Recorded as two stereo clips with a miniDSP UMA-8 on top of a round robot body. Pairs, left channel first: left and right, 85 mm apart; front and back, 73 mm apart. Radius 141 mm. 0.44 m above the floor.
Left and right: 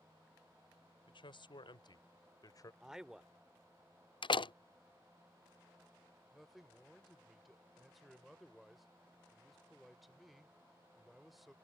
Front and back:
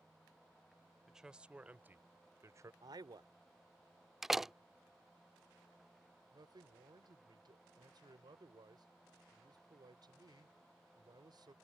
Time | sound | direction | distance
1.1 | a man speaking | 95° left | ?
2.8 | a man speaking | 175° right | ?
4.2 | a door slam | 95° left | ?
6.3 | a man speaking | straight behind | ?